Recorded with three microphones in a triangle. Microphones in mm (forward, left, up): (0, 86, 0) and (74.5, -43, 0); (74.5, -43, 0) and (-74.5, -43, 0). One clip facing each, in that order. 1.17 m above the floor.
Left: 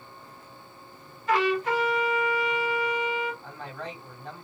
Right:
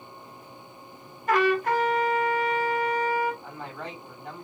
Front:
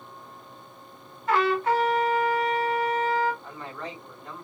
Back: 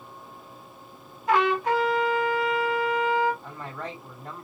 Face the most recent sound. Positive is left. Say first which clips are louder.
# even, back 1 dB
turn(degrees=-140)